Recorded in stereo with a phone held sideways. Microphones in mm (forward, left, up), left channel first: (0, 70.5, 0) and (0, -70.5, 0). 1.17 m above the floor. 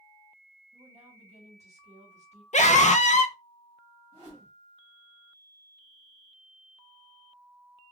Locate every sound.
0.7 s a woman speaking: 55° right (ahead or behind), 1.4 m
2.5 s a scream: 65° left (ahead or behind), 0.6 m
4.1 s a whoosh: 45° right (ahead or behind), 1.7 m